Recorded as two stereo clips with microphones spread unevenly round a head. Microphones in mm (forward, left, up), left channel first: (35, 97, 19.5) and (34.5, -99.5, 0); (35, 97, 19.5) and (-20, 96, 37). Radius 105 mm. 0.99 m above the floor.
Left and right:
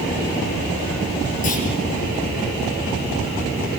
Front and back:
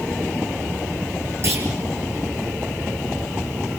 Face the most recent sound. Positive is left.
turn(degrees=145)